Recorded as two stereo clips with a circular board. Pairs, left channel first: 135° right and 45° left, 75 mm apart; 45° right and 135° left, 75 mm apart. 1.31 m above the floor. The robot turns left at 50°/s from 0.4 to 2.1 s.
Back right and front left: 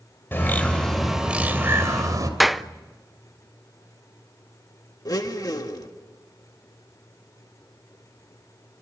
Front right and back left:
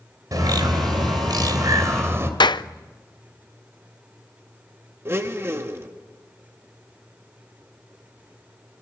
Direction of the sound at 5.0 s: 170° right.